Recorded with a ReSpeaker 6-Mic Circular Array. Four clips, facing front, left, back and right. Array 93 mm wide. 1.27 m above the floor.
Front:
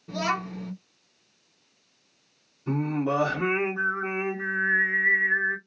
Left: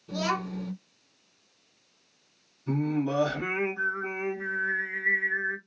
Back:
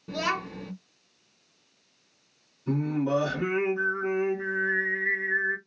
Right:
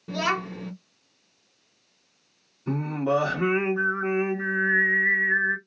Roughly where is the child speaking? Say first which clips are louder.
Right 2 dB, front 1 dB; right.